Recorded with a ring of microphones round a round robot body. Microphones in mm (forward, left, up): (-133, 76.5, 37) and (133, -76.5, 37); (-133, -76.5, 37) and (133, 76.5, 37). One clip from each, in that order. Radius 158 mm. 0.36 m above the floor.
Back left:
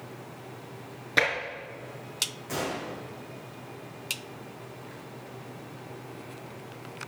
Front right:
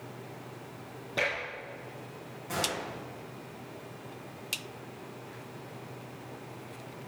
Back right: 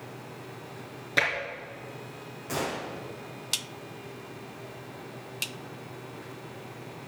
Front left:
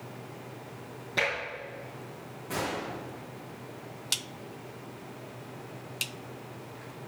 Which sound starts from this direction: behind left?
Tapping, at 1.2 s.